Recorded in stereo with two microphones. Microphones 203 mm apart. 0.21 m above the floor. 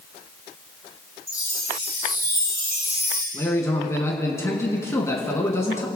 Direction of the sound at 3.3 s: 15° left (ahead or behind).